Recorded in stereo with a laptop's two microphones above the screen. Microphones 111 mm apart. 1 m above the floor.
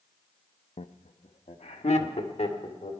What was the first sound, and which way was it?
Laughter, 75° left (ahead or behind).